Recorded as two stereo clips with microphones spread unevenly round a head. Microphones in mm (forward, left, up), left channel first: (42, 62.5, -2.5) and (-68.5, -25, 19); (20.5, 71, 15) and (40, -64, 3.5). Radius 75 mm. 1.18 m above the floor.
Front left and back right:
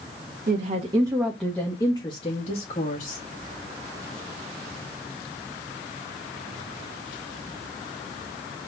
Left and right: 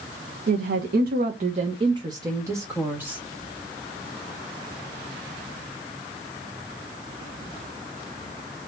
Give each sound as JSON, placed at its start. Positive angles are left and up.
{"t": 0.5, "sound": "a woman speaking", "azimuth_deg": -100, "distance_m": 1.1}